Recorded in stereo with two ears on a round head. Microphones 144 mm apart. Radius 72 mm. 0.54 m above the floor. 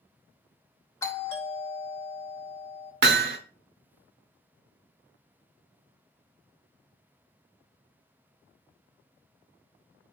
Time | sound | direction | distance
1.0 | a doorbell | 15° left (ahead or behind) | 1.4 m
3.0 | hammering | 65° right (ahead or behind) | 0.6 m